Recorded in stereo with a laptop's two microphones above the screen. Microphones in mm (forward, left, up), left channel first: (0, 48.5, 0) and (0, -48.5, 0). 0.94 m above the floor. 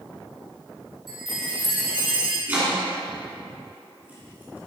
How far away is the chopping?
About 1.9 m.